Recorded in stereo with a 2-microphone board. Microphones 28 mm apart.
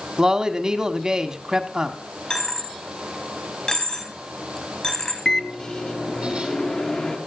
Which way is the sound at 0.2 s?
25° right (ahead or behind).